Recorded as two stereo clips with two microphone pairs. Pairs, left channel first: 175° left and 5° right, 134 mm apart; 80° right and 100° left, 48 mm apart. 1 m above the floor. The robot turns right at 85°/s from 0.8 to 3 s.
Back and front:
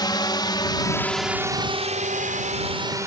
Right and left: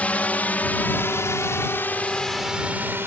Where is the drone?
135° right; by 3.1 s 60° left.